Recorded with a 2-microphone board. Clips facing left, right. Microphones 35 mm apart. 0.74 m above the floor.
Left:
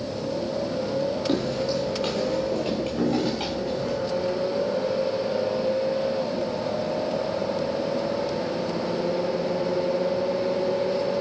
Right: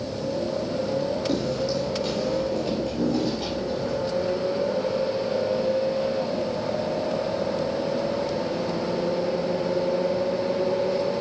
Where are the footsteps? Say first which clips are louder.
Even; 40° left (ahead or behind), 1.7 m; by 4.0 s 60° left (ahead or behind), 3 m.